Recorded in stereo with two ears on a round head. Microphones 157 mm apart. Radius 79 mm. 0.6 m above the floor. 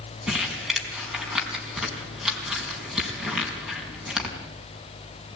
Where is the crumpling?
5° right (ahead or behind), 5 m.